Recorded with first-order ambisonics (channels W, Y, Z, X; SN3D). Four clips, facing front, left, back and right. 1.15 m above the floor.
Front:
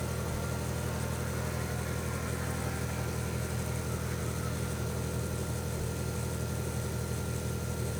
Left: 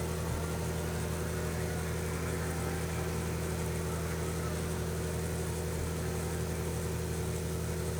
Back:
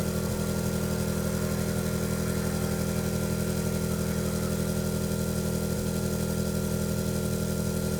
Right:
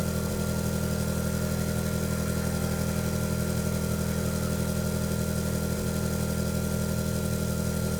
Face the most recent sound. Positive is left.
turn(degrees=-135)